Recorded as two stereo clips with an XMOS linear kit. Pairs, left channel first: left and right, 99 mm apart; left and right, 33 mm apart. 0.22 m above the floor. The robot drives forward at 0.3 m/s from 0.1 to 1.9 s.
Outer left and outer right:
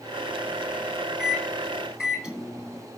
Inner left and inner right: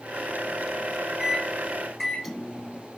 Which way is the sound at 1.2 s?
5° right (ahead or behind).